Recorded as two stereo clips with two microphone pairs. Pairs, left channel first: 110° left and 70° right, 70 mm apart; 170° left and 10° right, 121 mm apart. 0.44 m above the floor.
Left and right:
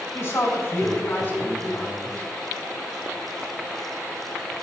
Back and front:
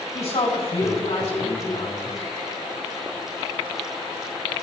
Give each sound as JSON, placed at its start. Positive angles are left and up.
{"t": 0.1, "sound": "a woman speaking", "azimuth_deg": 150, "distance_m": 3.5}